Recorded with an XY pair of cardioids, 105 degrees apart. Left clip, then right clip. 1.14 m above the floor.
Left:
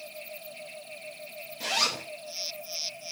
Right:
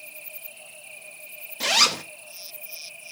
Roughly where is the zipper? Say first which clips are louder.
Right 7 dB; ahead right.